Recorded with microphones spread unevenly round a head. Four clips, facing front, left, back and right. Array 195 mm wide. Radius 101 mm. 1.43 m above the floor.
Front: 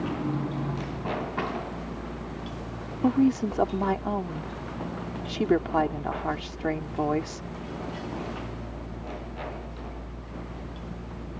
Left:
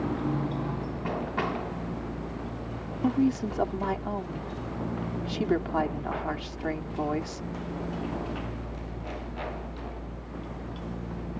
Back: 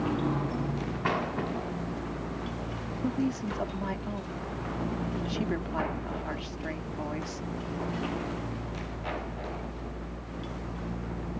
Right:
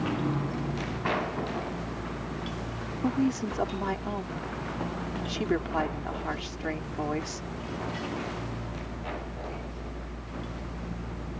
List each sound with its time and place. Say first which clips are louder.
3.0 s a woman speaking: left 2 dB, front 8 dB; 5° left